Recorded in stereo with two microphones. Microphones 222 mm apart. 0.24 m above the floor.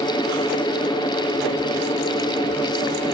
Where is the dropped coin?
I don't hear a dropped coin.